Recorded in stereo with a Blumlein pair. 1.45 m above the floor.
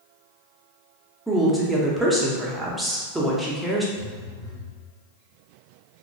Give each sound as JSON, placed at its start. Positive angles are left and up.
{"t": 1.3, "sound": "a woman speaking", "azimuth_deg": -5, "distance_m": 0.7}
{"t": 4.0, "sound": "a phone buzzing", "azimuth_deg": 10, "distance_m": 0.8}